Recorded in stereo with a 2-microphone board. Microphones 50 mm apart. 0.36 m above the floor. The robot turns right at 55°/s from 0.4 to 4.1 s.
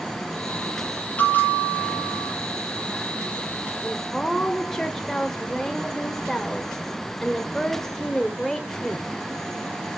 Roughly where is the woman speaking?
Centre.